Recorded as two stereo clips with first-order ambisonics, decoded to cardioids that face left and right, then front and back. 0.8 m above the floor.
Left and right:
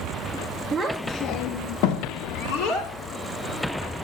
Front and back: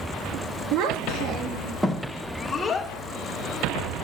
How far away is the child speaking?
About 0.7 m.